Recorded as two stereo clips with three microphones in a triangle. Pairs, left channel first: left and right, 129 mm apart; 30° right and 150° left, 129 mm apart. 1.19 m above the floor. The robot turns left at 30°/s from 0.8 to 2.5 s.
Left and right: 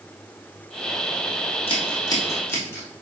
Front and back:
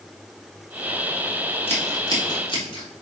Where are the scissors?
45° left, 3 m; by 3.0 s 20° left, 3 m.